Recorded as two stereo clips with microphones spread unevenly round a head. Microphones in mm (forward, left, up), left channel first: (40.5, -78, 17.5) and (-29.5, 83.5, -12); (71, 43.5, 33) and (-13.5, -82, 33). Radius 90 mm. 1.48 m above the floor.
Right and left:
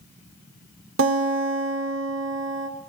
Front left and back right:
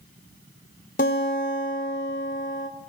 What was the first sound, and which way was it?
A guitar, 100° left.